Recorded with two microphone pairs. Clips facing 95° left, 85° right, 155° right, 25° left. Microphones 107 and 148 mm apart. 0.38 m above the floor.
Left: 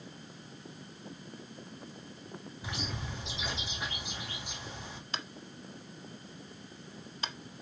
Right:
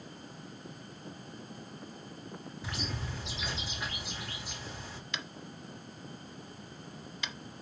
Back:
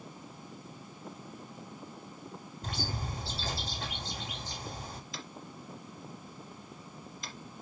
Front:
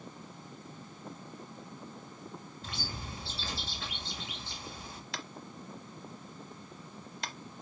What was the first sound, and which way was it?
A bird, 165° left.